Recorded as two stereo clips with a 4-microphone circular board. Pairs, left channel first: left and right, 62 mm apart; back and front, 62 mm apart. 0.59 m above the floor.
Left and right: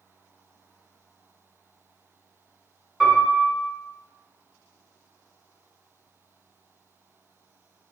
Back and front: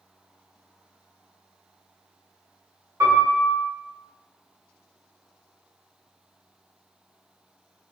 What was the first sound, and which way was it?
A piano, 5° right.